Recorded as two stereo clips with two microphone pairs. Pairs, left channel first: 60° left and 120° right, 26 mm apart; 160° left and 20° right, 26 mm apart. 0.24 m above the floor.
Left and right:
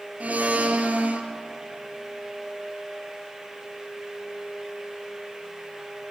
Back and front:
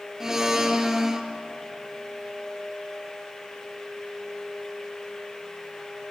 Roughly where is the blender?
Right.